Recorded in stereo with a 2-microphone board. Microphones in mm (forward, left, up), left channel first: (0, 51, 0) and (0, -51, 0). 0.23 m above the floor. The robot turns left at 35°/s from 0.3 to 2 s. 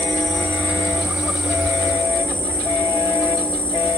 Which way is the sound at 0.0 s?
Straight behind.